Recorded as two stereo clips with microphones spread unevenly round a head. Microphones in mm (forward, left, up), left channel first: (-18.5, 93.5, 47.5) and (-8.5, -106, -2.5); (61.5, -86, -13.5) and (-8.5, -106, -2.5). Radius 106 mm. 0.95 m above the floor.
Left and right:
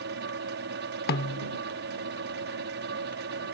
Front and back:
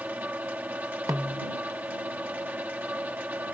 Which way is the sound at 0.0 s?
95° right.